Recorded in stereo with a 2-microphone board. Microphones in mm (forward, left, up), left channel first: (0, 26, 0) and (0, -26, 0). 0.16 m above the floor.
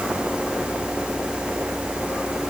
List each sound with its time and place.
Only background noise.